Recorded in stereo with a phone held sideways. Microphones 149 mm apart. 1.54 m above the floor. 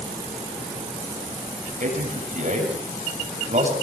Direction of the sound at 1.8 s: 60° right (ahead or behind).